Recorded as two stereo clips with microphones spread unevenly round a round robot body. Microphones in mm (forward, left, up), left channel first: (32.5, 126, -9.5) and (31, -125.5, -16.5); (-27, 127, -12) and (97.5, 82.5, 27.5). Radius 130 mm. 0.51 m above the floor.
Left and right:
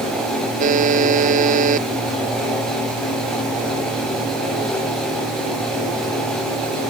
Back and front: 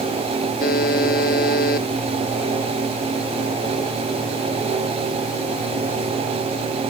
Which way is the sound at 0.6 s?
155° right.